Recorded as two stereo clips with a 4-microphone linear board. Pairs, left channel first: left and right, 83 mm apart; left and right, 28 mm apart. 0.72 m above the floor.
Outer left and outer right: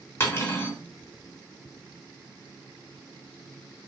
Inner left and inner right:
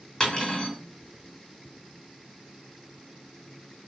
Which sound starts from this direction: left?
Cutlery clinking, at 0.2 s.